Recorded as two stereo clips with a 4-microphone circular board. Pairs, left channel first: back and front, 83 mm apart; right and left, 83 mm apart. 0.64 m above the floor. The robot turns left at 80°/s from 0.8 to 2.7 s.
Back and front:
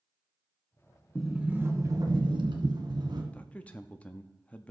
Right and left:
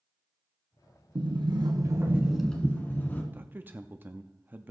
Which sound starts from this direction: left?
A sliding door, at 1.1 s.